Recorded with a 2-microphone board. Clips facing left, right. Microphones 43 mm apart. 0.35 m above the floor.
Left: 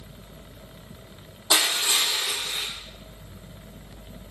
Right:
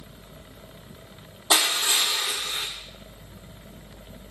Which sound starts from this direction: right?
Crushing, at 1.5 s.